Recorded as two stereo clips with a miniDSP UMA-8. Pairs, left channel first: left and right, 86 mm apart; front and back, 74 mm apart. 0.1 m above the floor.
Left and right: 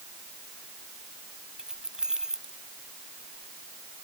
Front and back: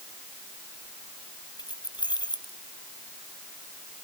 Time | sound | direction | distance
1.6 | keys jangling | 10° right | ?